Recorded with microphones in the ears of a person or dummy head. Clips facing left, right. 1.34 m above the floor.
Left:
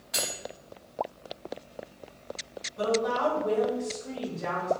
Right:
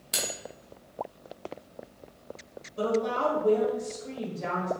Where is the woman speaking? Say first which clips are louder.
Even; 40° right (ahead or behind), 1.2 m.